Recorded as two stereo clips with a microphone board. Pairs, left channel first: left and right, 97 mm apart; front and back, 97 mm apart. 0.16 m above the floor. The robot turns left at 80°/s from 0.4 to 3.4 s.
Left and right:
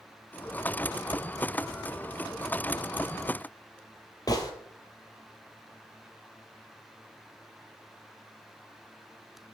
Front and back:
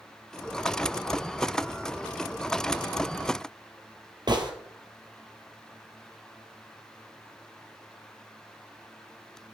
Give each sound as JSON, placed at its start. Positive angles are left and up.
{"t": 4.3, "sound": "a gunshot", "azimuth_deg": 140, "distance_m": 1.8}